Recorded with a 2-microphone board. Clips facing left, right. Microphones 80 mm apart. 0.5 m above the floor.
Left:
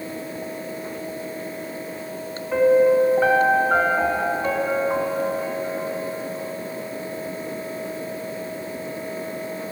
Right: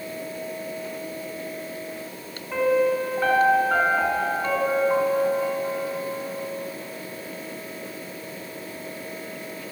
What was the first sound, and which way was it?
A piano, 15° left (ahead or behind).